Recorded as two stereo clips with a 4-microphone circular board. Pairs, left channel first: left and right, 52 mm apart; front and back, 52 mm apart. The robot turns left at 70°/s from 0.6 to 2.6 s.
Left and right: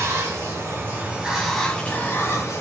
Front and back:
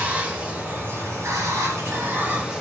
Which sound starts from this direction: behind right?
Running water, at 0.0 s.